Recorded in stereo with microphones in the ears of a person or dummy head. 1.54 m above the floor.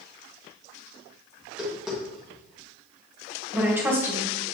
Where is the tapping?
5° right (ahead or behind), 2 m.